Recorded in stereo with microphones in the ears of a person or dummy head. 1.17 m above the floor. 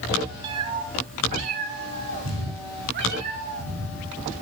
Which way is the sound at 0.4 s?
20° right (ahead or behind).